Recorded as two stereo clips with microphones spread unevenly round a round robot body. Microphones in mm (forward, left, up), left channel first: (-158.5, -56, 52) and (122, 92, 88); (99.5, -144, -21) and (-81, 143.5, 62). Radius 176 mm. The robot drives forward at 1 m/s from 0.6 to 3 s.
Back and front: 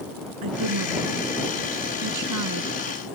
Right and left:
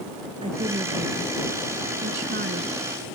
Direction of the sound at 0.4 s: 50° left.